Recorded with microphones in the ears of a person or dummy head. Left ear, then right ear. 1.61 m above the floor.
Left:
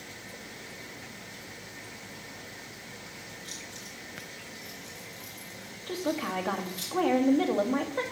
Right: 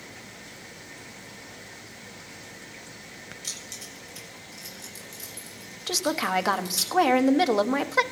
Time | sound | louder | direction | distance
3.4 | keys jangling | right 7 dB | 50° right (ahead or behind) | 7 m
5.9 | a woman speaking | right 6 dB | 85° right | 1.1 m